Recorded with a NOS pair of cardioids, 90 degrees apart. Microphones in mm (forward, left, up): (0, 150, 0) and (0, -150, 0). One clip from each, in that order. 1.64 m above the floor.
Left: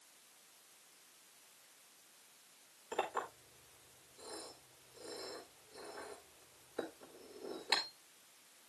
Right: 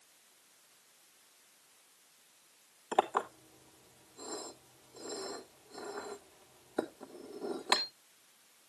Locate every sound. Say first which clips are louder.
2.9 s a clink: right 8 dB; 65° right, 3 m